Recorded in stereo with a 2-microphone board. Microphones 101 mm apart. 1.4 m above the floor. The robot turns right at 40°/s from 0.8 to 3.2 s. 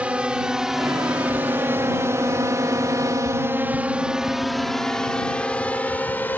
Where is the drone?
10° right (ahead or behind); by 6.4 s 20° left (ahead or behind).